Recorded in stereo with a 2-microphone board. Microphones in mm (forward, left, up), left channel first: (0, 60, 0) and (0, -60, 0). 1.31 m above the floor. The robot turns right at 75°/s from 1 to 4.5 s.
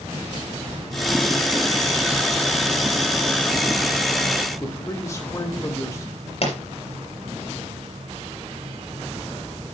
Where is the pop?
60° left (ahead or behind), 4 m.